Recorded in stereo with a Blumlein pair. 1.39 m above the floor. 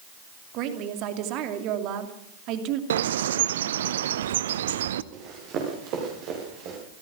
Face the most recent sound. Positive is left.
turn(degrees=-40)